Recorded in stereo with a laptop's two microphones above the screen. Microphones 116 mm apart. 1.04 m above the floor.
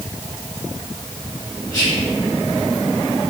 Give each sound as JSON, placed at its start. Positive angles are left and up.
{"t": 1.7, "sound": "whispering", "side_deg": 20, "distance_m": 1.8}